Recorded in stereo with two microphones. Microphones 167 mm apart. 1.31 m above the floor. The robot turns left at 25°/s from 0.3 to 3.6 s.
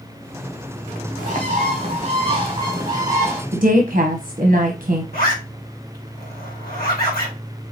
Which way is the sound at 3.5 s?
55° right (ahead or behind).